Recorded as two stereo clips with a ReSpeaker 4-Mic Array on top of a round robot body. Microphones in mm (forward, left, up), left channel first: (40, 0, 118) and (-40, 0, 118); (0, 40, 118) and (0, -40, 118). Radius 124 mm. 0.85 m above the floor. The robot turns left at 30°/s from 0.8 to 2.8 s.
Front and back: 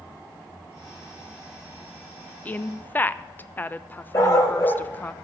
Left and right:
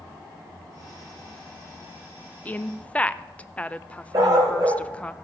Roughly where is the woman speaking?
Ahead left.